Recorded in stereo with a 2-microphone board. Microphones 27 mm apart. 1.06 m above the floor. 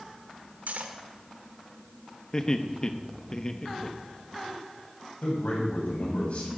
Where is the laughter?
25° left (ahead or behind), 1.2 m.